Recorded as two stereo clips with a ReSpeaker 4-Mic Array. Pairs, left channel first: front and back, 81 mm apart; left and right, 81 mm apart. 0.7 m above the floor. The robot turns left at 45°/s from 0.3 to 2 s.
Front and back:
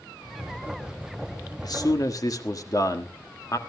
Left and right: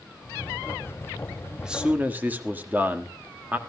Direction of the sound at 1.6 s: 10° right.